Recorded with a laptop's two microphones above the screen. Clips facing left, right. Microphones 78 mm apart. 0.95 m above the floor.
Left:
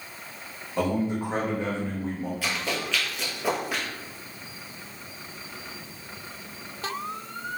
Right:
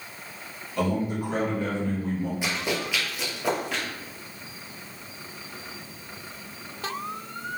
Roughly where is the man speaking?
Left.